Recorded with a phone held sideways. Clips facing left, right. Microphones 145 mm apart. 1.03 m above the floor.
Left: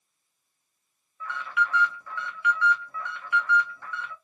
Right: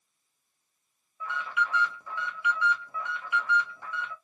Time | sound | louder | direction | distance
1.2 | an alarm | left 2 dB | 15° right (ahead or behind) | 0.9 m